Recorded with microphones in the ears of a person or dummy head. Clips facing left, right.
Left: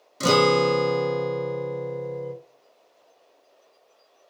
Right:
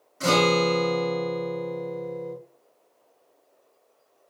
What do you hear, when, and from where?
0.2 s a guitar: 45° left (ahead or behind), 0.5 m